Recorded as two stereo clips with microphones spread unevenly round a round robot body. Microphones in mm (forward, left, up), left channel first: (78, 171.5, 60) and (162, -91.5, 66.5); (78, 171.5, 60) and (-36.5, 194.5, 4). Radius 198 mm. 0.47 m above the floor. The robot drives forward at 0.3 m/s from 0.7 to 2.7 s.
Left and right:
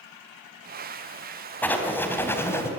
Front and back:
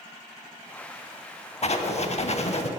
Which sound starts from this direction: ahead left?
Writing, at 1.6 s.